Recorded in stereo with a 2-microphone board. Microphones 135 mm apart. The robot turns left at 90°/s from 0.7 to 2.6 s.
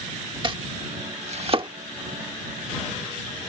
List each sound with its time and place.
0.4 s chopping: 40° right (ahead or behind); by 1.7 s 35° right (ahead or behind)